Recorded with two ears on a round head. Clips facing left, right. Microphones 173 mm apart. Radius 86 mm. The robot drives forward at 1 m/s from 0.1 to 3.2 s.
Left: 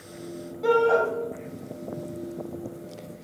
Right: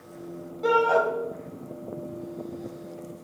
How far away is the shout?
About 1.5 m.